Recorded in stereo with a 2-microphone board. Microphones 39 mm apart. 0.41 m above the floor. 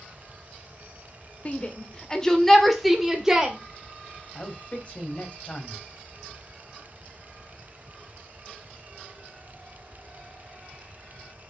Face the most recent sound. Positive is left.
turn(degrees=30)  # may be behind; listen again after turning